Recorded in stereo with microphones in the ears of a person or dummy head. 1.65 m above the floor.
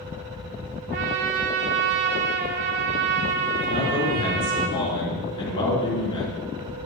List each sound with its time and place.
0.9 s a trumpet: 30° right (ahead or behind), 0.6 m
3.7 s a man speaking: 20° left (ahead or behind), 3.5 m